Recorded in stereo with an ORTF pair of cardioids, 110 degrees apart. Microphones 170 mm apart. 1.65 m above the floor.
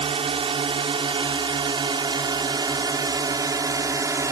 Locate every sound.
0.0 s a drone: 35° right; by 4.3 s 20° right